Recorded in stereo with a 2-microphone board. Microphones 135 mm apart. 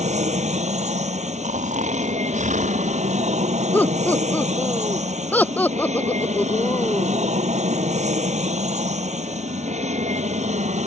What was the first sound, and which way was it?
An aircraft, 60° right (ahead or behind).